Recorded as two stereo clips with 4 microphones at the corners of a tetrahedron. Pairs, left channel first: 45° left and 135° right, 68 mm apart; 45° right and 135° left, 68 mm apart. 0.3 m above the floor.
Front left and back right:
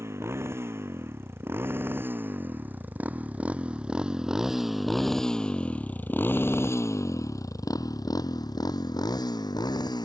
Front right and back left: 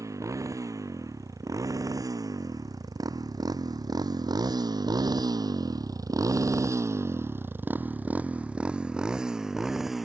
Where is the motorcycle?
175° left; by 10.1 s 50° left.